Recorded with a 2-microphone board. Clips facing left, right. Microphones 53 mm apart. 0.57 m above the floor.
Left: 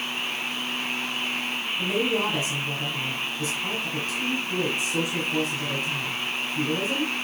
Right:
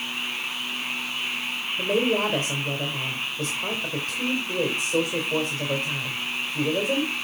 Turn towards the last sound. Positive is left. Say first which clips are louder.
# right 3 dB
turn(degrees=-70)  # may be behind; listen again after turning